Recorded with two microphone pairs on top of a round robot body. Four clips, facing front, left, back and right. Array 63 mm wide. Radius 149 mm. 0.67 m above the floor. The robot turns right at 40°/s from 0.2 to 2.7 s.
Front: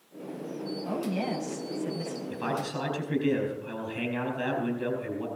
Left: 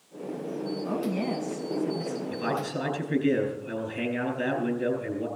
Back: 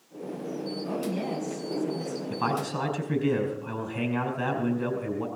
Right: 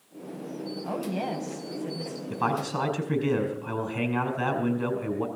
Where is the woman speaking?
80° right, 4.5 m; by 2.2 s 25° right, 4.5 m.